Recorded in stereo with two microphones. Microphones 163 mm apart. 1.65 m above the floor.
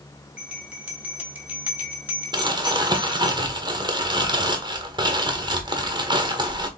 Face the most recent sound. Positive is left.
turn(degrees=-30)  # may be behind; listen again after turning